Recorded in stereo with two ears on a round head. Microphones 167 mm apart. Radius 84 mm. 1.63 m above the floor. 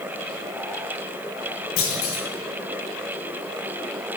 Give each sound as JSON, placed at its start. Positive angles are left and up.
{"t": 1.8, "sound": "a clunk", "side_deg": 80, "distance_m": 2.0}